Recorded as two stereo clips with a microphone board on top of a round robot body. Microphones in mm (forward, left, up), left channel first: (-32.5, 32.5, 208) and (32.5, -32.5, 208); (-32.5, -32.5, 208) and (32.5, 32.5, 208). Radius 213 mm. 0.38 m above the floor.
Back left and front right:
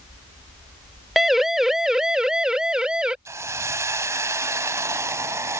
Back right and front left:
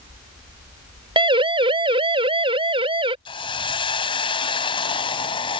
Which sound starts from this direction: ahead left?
A siren, at 1.2 s.